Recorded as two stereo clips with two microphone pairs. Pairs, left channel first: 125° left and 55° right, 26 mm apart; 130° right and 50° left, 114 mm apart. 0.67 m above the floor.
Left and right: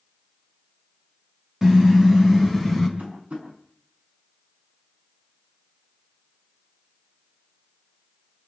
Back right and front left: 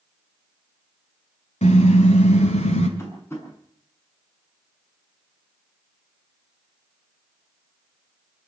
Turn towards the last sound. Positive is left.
turn(degrees=-60)